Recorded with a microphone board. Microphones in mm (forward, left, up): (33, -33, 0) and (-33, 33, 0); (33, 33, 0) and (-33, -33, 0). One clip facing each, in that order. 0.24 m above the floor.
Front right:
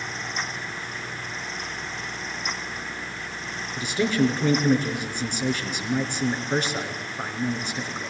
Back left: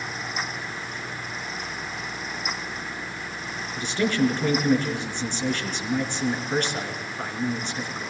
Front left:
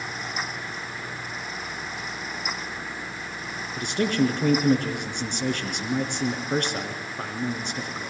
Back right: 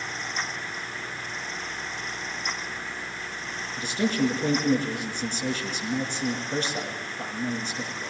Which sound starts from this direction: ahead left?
A man speaking, at 3.8 s.